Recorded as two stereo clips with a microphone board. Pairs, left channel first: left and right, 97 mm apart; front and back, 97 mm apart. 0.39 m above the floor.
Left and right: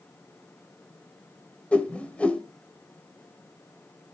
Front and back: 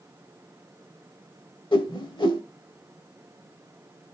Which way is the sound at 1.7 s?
15° left.